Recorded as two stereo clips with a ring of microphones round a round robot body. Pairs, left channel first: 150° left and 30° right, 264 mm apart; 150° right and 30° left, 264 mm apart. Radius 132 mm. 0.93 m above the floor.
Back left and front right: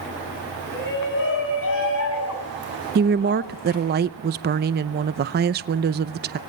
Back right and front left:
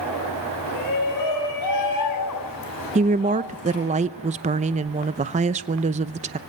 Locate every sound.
0.7 s a shout: 160° right, 9 m; by 4.0 s 175° left, 10.5 m
3.0 s a woman speaking: 15° right, 0.7 m